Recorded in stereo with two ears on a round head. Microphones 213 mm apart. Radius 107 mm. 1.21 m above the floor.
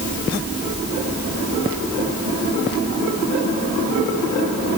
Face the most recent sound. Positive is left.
No sound to turn to.